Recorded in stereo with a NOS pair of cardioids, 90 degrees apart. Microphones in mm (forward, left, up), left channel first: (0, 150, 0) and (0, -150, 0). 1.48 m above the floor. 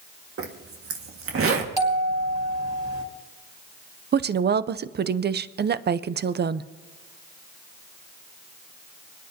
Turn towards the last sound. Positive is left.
turn(degrees=-35)